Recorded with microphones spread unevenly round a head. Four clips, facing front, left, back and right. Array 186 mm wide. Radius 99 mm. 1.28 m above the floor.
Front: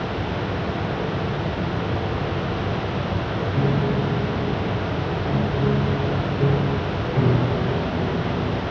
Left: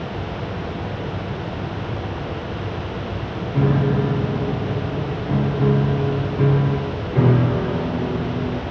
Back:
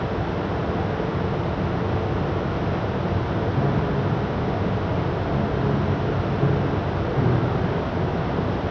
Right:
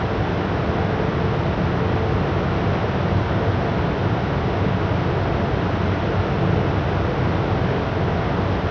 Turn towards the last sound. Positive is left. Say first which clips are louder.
# left 2 dB, front 4 dB
turn(degrees=80)